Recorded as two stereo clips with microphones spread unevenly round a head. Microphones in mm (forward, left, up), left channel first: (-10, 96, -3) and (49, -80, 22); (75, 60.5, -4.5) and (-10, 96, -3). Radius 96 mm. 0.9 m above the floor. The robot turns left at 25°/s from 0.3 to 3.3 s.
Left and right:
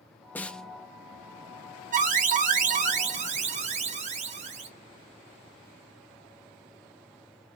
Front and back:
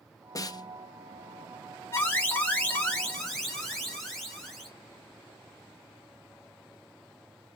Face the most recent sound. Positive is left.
turn(degrees=-105)